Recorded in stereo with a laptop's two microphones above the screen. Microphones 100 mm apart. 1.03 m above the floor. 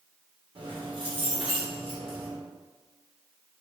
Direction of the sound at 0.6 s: 60° right (ahead or behind).